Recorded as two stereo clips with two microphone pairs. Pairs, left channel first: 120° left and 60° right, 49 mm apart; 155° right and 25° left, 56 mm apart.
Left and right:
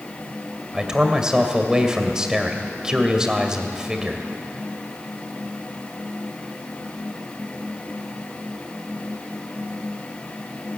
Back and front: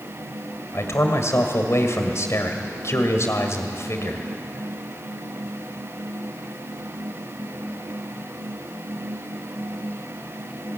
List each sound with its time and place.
0.7 s a man speaking: 135° right, 2 m